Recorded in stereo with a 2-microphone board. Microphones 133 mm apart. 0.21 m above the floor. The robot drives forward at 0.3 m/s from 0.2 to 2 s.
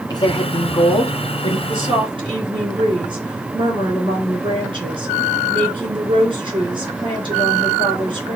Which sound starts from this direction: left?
A woman speaking, at 0.1 s.